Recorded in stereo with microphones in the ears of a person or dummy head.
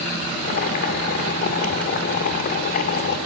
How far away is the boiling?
About 1.9 m.